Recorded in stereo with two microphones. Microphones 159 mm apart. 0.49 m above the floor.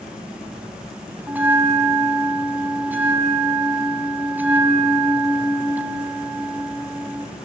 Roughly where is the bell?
Centre.